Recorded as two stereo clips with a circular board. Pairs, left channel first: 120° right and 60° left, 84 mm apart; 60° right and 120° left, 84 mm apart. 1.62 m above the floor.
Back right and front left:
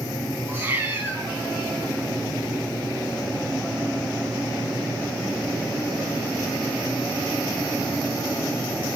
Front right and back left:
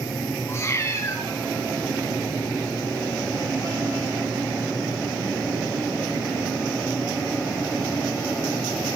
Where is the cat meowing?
Straight ahead, 6.5 m.